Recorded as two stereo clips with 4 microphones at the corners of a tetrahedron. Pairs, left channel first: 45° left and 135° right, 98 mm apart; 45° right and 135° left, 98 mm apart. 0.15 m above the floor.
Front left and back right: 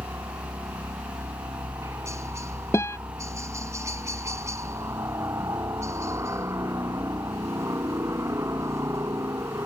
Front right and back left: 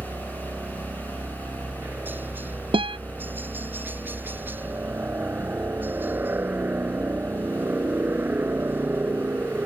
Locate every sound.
0.0 s a helicopter: 170° right
2.7 s a guitar: 105° left